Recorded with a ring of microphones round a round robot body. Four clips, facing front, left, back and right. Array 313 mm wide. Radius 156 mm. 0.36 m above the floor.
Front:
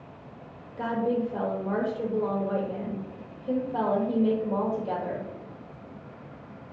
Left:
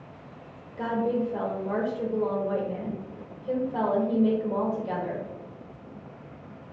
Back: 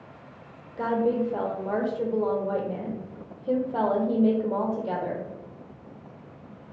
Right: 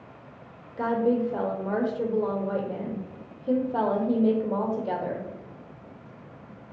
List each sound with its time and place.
0.8 s a woman speaking: 135° right, 0.9 m